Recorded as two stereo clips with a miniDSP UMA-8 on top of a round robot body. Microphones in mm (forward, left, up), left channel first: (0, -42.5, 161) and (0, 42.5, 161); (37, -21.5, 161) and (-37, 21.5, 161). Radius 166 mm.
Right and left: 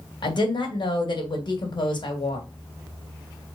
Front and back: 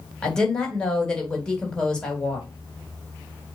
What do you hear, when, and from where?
0.2 s a woman speaking: 110° right, 3.5 m